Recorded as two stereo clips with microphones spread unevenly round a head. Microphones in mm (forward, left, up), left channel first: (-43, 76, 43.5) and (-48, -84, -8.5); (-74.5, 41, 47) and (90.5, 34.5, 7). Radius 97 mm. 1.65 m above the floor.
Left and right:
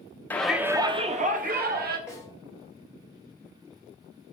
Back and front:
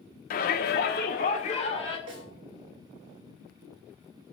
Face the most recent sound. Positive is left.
turn(degrees=0)